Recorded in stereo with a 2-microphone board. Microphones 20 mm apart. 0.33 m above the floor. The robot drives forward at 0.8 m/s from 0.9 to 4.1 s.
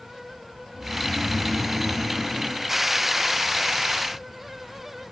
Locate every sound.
0.7 s snoring: 75° right (ahead or behind), 4 m